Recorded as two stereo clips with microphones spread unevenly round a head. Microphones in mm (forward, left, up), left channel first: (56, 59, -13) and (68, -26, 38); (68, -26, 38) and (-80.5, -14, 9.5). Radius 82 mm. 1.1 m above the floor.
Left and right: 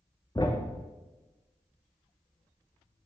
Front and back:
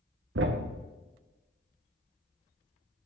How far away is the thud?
About 0.7 m.